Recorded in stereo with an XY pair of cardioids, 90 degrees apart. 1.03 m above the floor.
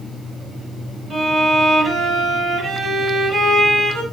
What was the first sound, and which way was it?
A violin, 70° right.